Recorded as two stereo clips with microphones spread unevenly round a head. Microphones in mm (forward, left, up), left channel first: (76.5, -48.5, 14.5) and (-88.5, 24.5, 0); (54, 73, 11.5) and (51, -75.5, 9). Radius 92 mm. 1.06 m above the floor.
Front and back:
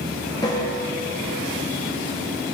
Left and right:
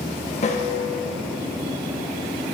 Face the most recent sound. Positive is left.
turn(degrees=50)